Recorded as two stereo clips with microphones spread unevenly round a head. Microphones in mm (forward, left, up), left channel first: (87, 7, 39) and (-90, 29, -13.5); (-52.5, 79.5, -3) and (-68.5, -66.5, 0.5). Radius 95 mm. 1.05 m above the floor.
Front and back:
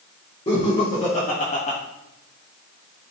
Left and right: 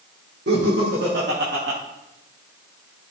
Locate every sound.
0.5 s laughter: 65° right, 2 m